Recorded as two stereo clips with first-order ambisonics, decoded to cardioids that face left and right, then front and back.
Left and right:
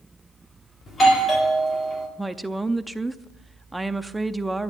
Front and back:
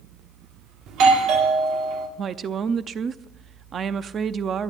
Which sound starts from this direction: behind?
A woman speaking, at 2.2 s.